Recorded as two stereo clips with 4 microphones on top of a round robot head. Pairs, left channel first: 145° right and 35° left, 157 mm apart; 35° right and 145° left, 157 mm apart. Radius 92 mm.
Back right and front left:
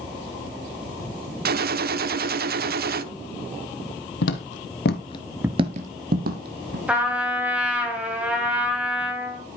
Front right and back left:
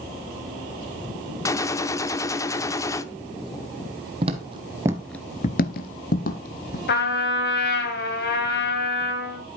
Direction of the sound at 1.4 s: 35° left.